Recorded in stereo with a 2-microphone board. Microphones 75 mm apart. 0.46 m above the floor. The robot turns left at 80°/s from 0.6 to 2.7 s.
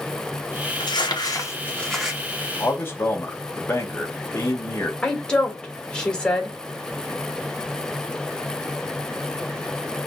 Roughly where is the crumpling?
Left.